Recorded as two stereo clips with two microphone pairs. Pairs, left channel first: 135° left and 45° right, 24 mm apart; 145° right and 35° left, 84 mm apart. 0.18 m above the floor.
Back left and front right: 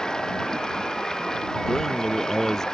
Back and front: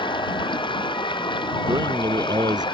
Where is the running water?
160° right.